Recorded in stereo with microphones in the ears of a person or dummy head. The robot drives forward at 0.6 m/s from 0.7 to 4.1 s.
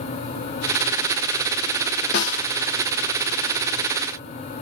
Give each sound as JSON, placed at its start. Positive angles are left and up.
{"t": 2.1, "sound": "a snare drum", "side_deg": 65, "distance_m": 1.5}